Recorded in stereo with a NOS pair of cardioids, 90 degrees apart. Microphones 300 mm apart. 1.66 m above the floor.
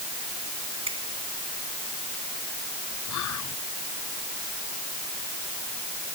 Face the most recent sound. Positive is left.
turn(degrees=70)